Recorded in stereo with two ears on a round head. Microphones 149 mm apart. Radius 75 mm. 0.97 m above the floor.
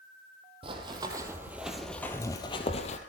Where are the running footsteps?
30° right (ahead or behind), 2.5 m; by 3.0 s 45° left (ahead or behind), 1.9 m.